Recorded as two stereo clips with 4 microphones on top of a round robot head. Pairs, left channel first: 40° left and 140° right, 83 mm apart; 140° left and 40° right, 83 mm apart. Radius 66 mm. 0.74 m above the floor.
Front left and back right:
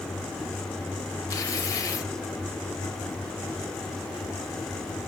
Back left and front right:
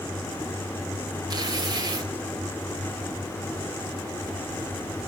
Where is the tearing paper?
10° right, 1.7 m.